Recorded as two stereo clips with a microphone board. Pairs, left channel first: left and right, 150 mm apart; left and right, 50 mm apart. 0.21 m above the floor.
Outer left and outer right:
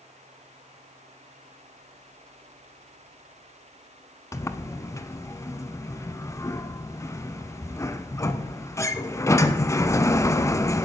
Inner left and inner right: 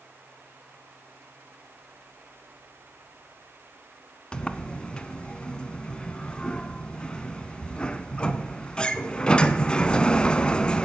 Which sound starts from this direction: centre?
A sliding door, at 4.3 s.